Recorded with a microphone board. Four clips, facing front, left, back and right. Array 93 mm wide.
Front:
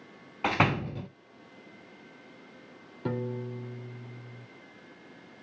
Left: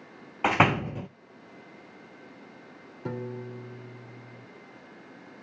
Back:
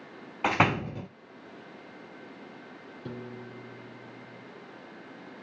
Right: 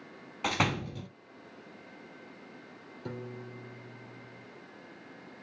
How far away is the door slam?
About 0.5 m.